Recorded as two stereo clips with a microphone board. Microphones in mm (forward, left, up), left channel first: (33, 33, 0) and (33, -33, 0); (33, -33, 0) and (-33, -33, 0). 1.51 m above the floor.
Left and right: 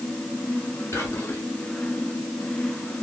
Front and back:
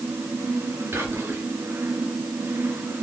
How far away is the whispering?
About 0.7 m.